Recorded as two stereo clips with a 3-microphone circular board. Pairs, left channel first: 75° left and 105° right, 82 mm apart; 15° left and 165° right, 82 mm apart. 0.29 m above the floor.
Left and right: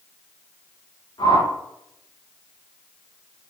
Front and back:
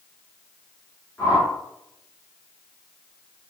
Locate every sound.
1.2 s a whoosh: 75° left, 4.5 m